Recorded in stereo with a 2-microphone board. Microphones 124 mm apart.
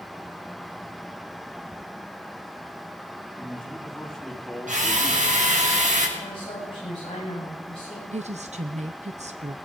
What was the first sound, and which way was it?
A man speaking, 5° left (ahead or behind).